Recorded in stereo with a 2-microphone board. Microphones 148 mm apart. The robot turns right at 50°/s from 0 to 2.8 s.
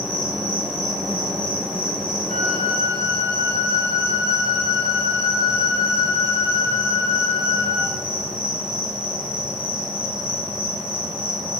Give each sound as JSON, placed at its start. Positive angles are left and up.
{"t": 0.0, "sound": "an insect", "azimuth_deg": -175, "distance_m": 4.5}
{"t": 2.3, "sound": "a flute", "side_deg": 5, "distance_m": 3.5}